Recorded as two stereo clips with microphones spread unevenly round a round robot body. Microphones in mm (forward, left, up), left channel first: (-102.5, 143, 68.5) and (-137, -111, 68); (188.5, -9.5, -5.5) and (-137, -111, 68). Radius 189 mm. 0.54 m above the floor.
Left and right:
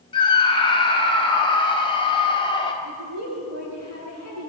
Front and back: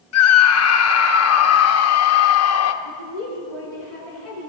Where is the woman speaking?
70° left, 10 m.